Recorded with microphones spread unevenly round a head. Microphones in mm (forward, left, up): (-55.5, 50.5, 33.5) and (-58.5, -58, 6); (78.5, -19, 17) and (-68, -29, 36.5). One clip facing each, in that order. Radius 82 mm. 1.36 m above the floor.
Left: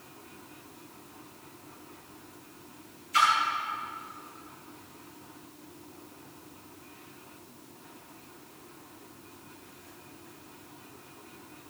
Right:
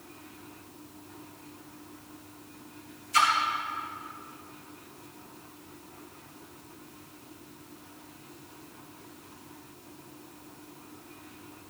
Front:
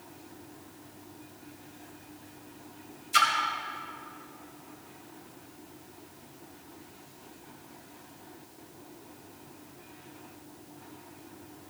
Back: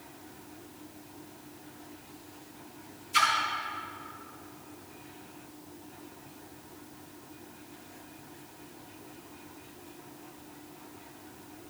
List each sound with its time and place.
3.1 s a splash: 15° right, 2.5 m